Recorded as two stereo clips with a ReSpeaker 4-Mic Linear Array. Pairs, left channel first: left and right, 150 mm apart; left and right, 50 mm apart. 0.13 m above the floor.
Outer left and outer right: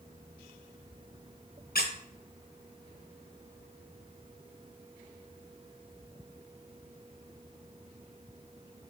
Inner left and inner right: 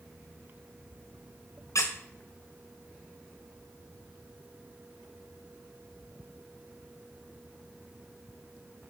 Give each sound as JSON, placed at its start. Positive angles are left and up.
{"t": 1.8, "sound": "a squeak", "side_deg": 85, "distance_m": 1.2}